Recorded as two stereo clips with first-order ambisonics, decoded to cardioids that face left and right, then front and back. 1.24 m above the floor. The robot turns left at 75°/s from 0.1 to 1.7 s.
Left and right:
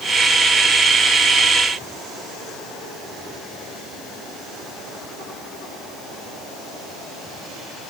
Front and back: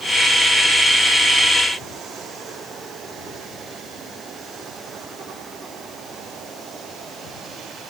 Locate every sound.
Only background noise.